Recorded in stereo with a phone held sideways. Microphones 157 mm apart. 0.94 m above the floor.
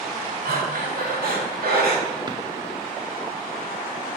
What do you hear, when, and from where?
0.5 s breathing: 75° right (ahead or behind), 1.8 m
2.3 s a drawer: 25° right (ahead or behind), 0.8 m